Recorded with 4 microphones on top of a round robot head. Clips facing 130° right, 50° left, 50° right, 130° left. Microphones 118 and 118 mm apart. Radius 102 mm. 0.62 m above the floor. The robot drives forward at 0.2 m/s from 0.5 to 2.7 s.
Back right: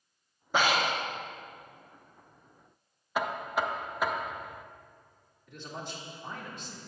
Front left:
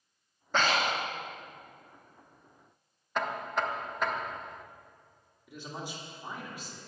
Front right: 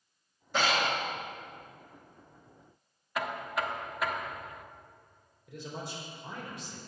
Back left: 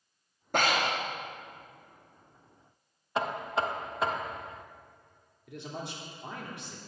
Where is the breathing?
150° left, 1.3 m; by 1.0 s 155° left, 1.4 m.